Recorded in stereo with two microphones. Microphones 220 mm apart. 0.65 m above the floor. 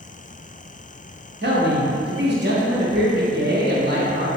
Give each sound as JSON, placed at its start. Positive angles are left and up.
{"t": 1.4, "sound": "a man speaking", "side_deg": -45, "distance_m": 0.8}